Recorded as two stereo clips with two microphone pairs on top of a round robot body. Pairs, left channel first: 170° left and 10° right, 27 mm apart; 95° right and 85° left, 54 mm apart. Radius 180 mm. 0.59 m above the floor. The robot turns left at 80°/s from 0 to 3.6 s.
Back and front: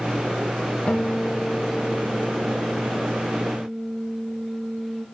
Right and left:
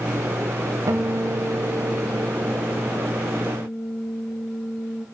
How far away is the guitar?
About 0.6 m.